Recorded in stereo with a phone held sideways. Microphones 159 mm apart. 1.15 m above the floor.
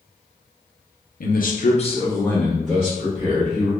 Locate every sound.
1.2 s a man speaking: 60° left (ahead or behind), 0.8 m; by 3.7 s 15° right (ahead or behind), 2 m